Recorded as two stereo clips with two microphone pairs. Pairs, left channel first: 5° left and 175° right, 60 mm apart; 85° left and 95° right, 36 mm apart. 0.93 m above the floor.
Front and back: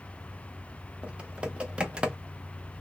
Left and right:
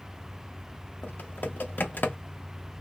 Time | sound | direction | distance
1.0 | typing on a keyboard | 115° left | 0.7 m